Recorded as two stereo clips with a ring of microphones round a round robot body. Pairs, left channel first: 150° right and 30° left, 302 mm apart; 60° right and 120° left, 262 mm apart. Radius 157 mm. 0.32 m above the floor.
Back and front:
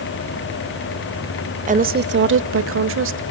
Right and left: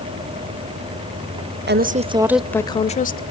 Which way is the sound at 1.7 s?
90° left.